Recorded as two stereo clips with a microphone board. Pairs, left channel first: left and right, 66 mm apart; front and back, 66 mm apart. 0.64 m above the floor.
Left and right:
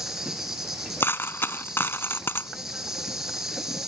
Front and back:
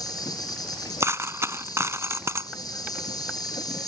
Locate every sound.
0.0 s an insect: 5° right
1.0 s a dropped coin: 140° left